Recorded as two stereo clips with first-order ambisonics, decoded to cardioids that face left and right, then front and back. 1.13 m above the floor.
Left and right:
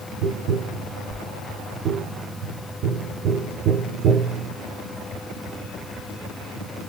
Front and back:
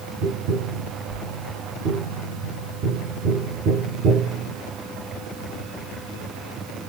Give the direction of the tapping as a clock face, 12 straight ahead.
5 o'clock.